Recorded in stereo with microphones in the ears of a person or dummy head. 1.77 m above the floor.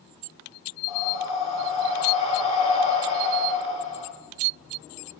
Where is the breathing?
35° left (ahead or behind), 2.5 m.